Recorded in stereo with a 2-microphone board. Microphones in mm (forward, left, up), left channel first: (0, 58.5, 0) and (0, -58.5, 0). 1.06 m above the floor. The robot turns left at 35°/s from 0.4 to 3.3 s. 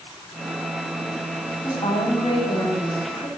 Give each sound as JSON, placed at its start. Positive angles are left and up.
{"t": 1.6, "sound": "a woman speaking", "azimuth_deg": 140, "distance_m": 7.5}